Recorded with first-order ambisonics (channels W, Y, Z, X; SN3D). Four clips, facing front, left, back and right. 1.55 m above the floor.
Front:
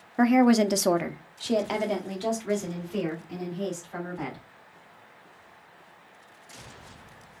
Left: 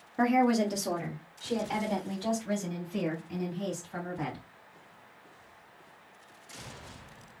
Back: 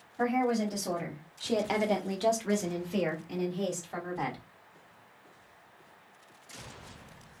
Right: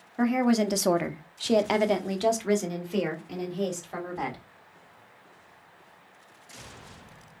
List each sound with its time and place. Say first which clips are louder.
0.2 s a woman speaking: right 1 dB, front 8 dB; 5° left, 0.6 m; by 4.4 s 110° right, 2 m